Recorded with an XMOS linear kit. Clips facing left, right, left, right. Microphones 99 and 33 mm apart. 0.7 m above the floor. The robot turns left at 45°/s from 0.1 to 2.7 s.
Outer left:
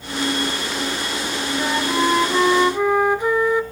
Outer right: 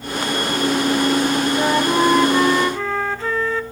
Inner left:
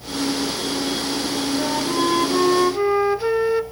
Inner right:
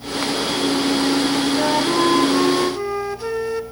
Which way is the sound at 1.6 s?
145° right.